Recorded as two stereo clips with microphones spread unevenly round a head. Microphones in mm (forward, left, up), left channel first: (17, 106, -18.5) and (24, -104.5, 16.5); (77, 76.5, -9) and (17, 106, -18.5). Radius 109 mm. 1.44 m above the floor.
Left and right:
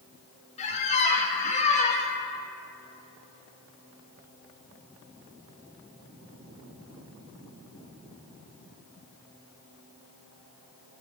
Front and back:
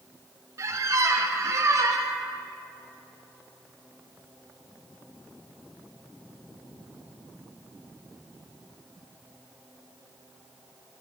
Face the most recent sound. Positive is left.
turn(degrees=150)